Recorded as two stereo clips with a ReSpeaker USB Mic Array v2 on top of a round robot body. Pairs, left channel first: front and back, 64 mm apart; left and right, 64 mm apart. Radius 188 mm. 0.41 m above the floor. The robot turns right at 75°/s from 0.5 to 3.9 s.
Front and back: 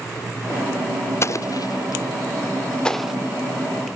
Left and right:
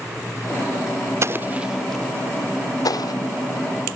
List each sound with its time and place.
1.2 s an explosion: 45° right; by 3.1 s 100° left